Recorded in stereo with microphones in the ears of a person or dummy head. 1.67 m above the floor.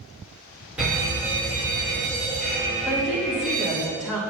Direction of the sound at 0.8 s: 5° right (ahead or behind).